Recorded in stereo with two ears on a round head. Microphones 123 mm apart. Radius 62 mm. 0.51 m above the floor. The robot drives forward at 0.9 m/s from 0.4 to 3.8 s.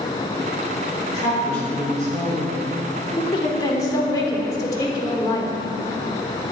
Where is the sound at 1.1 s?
55° left (ahead or behind), 1.7 m; by 2.6 s 35° left (ahead or behind), 2.5 m.